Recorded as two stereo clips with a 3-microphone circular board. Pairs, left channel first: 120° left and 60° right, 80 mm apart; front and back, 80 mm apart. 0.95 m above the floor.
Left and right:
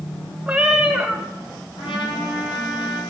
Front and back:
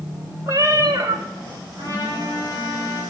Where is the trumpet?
130° left, 8 m.